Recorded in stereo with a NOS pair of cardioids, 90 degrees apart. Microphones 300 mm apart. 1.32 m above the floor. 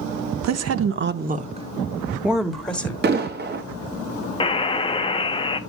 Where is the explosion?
35° right, 1.2 m.